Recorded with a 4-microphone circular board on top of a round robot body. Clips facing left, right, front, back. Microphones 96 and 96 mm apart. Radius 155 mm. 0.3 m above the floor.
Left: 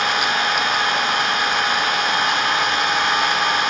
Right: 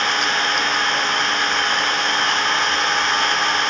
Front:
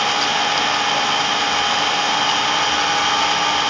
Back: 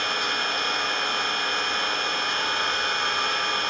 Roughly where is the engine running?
Ahead.